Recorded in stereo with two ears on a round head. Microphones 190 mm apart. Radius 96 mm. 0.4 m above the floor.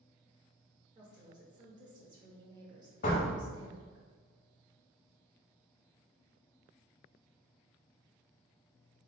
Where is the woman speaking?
20° right (ahead or behind), 0.8 m.